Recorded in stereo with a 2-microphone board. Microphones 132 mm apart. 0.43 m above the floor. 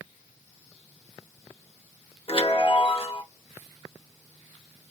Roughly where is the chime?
Left.